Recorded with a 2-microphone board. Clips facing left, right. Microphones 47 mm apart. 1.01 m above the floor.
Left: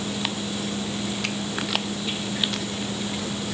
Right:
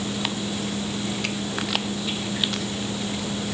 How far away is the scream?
No scream in this recording.